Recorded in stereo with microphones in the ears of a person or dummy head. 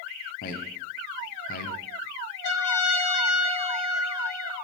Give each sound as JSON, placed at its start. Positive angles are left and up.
{"t": 0.4, "sound": "a man speaking", "side_deg": 50, "distance_m": 1.1}
{"t": 2.4, "sound": "a trumpet", "side_deg": 50, "distance_m": 3.5}